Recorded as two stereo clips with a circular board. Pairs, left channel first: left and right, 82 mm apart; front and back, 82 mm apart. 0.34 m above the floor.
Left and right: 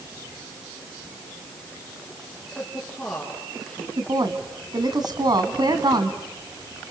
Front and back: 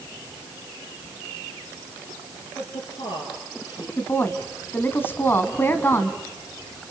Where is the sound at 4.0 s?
60° right, 2.5 m.